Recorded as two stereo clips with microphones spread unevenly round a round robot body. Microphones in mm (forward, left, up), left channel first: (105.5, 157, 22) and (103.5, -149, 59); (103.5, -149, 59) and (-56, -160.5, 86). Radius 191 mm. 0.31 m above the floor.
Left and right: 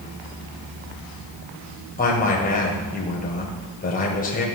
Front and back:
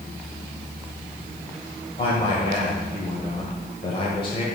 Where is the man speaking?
40° left, 1.4 m.